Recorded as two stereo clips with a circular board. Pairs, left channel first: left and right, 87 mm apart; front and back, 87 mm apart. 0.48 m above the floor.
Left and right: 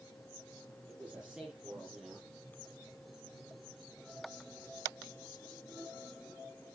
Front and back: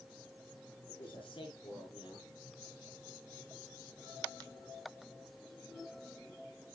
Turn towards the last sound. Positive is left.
turn(degrees=-10)